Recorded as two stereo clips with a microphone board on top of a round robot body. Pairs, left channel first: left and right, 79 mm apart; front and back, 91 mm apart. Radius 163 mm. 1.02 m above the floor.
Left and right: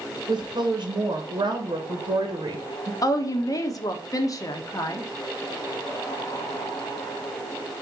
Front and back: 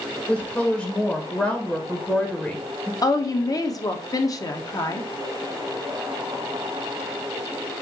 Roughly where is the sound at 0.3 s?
Right.